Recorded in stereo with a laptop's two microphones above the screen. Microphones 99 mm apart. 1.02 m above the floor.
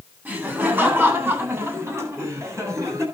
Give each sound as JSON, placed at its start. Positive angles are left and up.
{"t": 0.2, "sound": "laughter", "side_deg": -15, "distance_m": 9.0}